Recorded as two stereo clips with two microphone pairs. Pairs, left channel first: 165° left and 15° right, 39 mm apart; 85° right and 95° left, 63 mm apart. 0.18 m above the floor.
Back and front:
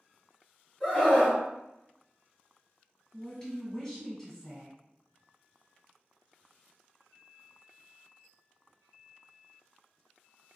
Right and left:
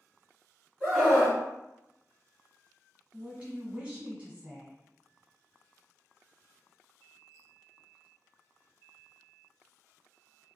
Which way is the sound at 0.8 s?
155° right.